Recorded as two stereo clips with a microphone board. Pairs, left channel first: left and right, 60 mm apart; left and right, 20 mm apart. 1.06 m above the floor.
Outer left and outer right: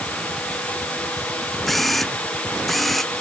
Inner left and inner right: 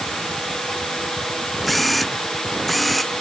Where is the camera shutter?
5° left (ahead or behind).